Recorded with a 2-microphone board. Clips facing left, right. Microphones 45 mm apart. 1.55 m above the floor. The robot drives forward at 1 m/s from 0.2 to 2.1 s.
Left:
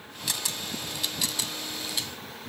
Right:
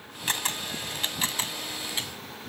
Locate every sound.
0.3 s a camera shutter: 40° right (ahead or behind); by 2.1 s 30° right (ahead or behind)